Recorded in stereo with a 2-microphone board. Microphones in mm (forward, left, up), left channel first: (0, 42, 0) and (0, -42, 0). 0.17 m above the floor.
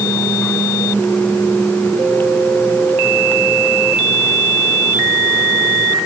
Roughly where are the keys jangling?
No keys jangling in this recording.